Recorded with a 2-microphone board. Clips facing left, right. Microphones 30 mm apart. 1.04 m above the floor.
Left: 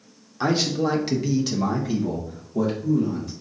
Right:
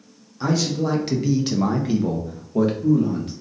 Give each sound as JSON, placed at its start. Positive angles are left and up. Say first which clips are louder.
{"t": 0.4, "sound": "a man speaking", "louder": "even", "side_deg": 35, "distance_m": 0.9}